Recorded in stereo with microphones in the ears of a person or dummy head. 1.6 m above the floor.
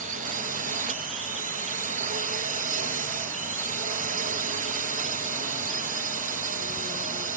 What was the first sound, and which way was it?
A drone, 40° right (ahead or behind).